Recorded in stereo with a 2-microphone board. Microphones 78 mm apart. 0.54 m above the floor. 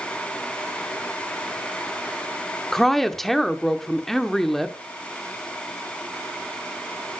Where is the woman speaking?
5° left (ahead or behind), 0.9 m.